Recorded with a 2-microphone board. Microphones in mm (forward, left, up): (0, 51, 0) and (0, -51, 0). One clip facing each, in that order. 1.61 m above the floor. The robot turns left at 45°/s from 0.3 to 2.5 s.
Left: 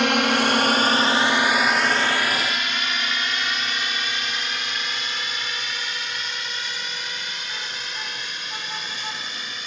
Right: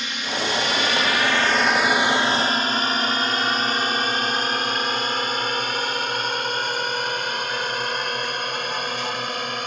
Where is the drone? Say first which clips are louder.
Left 8 dB; 70° left (ahead or behind); by 9.7 s 55° right (ahead or behind).